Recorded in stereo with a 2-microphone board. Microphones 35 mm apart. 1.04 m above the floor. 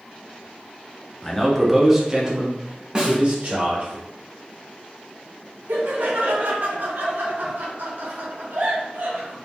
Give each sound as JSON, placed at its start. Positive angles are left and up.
{"t": 1.2, "sound": "a man speaking", "side_deg": 20, "distance_m": 0.6}
{"t": 3.0, "sound": "a snare drum", "side_deg": -25, "distance_m": 0.8}
{"t": 5.7, "sound": "laughter", "side_deg": -65, "distance_m": 0.8}